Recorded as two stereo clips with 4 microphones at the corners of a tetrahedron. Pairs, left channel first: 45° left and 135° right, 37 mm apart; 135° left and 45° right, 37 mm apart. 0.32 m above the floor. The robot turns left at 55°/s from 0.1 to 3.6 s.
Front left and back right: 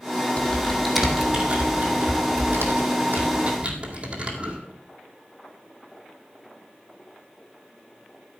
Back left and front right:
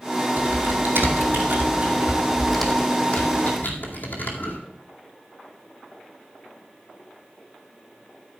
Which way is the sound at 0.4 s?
15° right.